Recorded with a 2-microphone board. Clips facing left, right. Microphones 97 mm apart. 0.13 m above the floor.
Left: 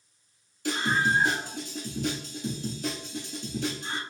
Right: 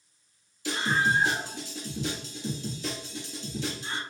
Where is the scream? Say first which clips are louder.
Even; 55° left (ahead or behind), 2 m.